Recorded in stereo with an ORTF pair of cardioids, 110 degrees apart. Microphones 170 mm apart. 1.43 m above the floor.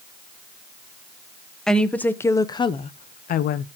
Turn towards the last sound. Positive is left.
turn(degrees=75)